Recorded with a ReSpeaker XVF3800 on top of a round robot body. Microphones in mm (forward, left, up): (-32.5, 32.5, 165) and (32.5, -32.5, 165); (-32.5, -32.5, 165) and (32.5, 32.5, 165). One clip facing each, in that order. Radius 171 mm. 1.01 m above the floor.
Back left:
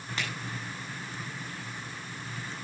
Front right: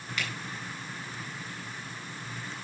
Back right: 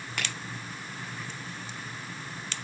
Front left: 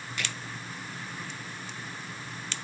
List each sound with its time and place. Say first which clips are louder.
0.2 s a finger snap: even, back right 1 dB; 165° right, 8 m